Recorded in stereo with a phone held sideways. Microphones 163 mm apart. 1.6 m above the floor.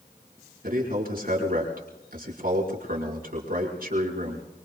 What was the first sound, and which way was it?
A man speaking, 65° right (ahead or behind).